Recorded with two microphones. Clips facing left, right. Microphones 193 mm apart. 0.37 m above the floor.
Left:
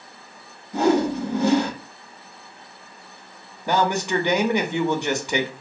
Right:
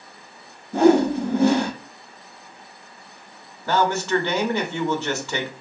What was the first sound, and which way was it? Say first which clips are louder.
A whoosh: right 4 dB; 55° right (ahead or behind).